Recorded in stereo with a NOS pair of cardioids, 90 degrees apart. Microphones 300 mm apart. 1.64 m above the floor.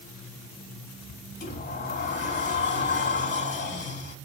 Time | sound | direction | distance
1.4 | a sliding door | 35° left | 3.5 m